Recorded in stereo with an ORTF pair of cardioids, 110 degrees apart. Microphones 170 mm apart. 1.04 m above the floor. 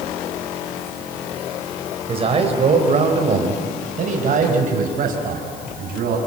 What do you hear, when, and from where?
2.1 s a man speaking: 35° right, 3.5 m; by 6.2 s 60° right, 5.5 m